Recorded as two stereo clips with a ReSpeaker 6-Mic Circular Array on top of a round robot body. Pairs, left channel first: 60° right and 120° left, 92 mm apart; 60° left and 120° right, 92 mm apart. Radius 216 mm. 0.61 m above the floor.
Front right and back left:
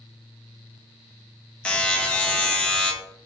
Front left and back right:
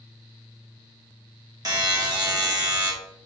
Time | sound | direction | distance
1.6 | a buzzer | 135° right | 1.2 m